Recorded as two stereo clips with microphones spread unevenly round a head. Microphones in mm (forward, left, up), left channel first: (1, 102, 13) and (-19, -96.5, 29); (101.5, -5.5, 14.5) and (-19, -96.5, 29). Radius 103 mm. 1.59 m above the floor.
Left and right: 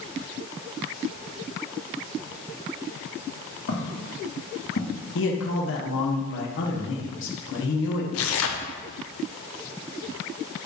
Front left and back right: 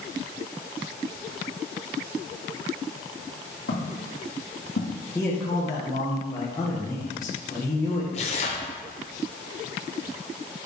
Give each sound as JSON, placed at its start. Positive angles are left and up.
{"t": 3.7, "sound": "footsteps", "azimuth_deg": 70, "distance_m": 3.5}
{"t": 5.2, "sound": "a man speaking", "azimuth_deg": 110, "distance_m": 1.6}
{"t": 8.1, "sound": "tearing paper", "azimuth_deg": 95, "distance_m": 0.9}